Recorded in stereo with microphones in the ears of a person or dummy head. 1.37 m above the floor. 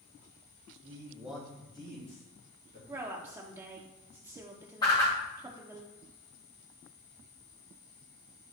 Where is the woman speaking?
15° right (ahead or behind), 0.7 m.